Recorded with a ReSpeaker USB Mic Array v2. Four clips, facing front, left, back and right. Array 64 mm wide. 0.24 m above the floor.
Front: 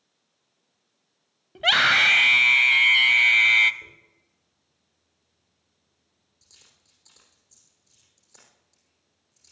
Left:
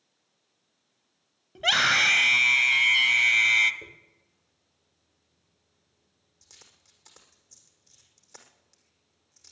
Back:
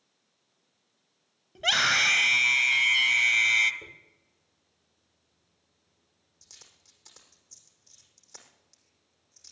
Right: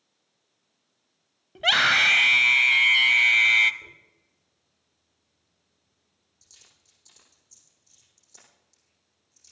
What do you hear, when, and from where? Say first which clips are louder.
1.6 s a scream: right 2 dB, front 6 dB; 25° right, 1.0 m
3.8 s a dropped coin: left 1 dB, back 1 dB; 120° left, 5 m